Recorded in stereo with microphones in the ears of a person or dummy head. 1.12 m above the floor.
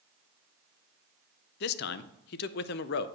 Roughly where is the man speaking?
Left.